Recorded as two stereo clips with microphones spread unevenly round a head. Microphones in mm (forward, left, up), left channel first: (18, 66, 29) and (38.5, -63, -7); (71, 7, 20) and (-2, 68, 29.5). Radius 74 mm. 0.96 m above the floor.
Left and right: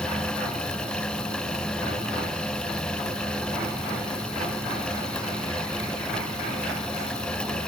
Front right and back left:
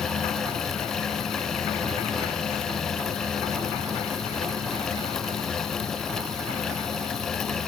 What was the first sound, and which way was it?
Only background noise.